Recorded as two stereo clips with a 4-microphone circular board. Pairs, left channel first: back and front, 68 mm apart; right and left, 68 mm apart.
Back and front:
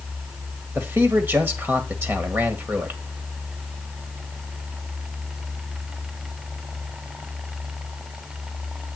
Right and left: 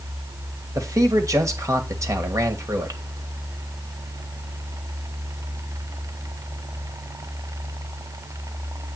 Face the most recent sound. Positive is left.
turn(degrees=55)